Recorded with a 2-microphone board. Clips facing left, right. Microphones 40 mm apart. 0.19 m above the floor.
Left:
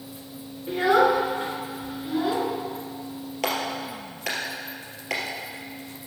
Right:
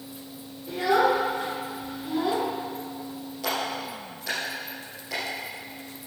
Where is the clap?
70° left (ahead or behind), 3 m.